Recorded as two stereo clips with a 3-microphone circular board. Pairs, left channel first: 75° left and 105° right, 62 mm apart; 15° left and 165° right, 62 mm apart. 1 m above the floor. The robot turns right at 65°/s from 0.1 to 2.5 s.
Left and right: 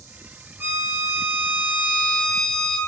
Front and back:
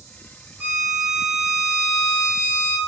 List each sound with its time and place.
0.6 s a violin: 125° right, 0.5 m; by 2.8 s straight ahead, 0.5 m